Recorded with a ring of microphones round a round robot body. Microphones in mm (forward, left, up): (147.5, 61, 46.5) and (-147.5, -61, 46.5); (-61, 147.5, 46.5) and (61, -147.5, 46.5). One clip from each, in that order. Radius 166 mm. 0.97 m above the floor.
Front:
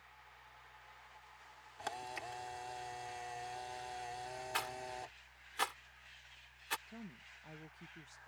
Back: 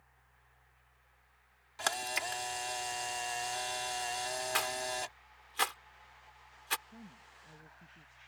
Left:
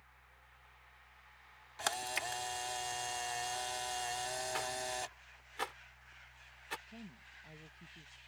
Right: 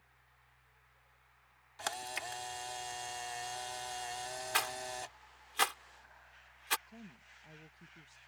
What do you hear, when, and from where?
1.8 s a camera shutter: 165° right
4.5 s a rattle: 90° right
6.9 s a woman speaking: 10° left